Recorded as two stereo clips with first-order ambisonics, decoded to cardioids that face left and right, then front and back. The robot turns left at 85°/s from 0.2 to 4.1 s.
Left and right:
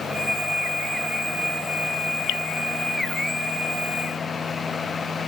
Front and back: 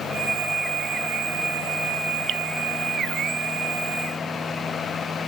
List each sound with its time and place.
2.3 s dripping: 130° left; by 2.4 s 120° left